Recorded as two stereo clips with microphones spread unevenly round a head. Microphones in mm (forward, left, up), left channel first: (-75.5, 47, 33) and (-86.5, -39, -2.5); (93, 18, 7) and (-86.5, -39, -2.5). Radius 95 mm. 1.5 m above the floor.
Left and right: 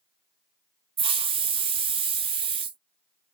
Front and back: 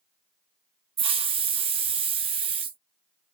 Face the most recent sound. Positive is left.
turn(degrees=-100)